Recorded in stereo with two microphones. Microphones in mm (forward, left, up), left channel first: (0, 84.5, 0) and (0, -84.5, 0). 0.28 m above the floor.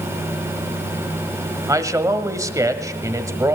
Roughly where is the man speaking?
Centre.